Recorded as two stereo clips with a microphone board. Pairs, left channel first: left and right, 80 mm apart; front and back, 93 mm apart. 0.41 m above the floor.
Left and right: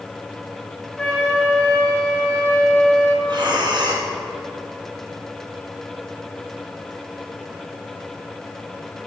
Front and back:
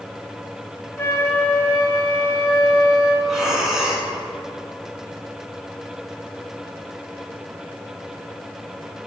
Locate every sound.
1.0 s a flute: 30° left, 1.0 m
3.2 s breathing: 95° right, 1.2 m